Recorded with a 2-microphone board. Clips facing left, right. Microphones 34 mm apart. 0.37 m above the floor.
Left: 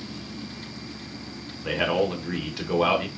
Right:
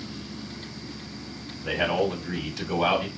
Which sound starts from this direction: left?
A man speaking, at 1.6 s.